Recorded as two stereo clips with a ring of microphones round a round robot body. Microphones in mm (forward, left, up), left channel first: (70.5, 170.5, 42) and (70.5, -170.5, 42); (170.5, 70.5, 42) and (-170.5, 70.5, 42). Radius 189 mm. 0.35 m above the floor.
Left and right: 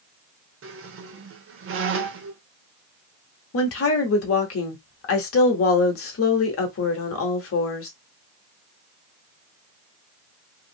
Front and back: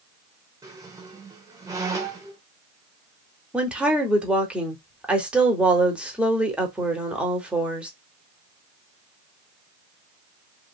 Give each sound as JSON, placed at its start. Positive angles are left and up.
{"t": 0.6, "sound": "a squeak", "azimuth_deg": -105, "distance_m": 0.6}
{"t": 3.5, "sound": "a woman speaking", "azimuth_deg": 95, "distance_m": 1.0}